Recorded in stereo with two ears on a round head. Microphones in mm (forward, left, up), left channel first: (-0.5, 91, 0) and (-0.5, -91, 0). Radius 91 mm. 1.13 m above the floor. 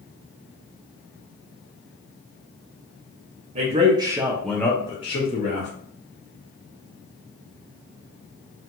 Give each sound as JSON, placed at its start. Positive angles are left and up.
{"t": 3.5, "sound": "a man speaking", "side_deg": -35, "distance_m": 0.7}